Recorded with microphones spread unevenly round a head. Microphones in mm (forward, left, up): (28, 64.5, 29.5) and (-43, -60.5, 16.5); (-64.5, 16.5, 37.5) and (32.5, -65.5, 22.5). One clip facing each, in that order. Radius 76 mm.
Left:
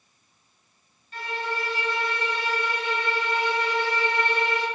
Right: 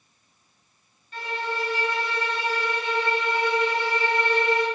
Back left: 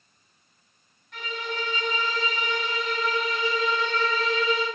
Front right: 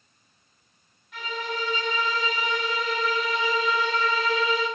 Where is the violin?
130° right, 1.4 m.